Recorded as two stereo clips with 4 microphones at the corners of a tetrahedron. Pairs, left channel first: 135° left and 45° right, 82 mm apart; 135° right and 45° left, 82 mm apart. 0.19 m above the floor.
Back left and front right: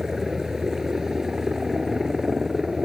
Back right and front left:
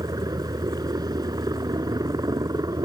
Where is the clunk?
No clunk in this recording.